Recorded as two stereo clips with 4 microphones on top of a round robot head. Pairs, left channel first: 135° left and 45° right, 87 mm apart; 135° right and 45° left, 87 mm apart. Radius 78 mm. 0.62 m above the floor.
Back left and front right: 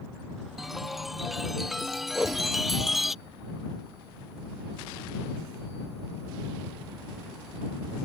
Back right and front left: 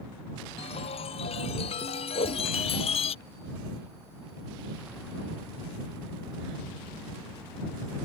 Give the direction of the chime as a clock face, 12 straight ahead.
4 o'clock.